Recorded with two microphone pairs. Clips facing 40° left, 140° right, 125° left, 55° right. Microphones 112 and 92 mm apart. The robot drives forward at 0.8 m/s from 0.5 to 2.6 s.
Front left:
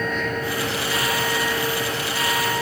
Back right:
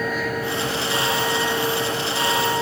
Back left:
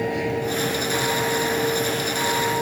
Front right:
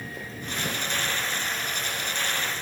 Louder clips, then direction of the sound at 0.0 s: Back right 1 dB, back left 14 dB; 135° left.